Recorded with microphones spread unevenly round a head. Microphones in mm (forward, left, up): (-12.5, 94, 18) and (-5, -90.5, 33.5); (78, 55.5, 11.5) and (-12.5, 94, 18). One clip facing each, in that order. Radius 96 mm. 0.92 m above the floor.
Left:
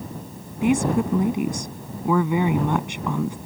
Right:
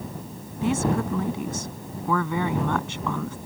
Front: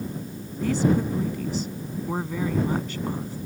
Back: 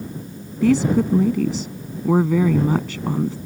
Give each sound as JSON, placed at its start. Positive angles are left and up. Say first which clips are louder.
{"t": 0.6, "sound": "a woman speaking", "louder": "left 4 dB, back 6 dB", "azimuth_deg": 165}